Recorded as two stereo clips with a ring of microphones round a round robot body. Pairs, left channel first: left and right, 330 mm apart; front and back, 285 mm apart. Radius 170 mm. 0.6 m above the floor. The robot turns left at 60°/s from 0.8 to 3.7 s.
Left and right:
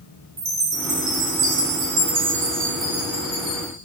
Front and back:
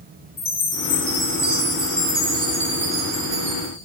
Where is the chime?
45° right, 1.0 m; by 3.7 s 140° left, 1.0 m.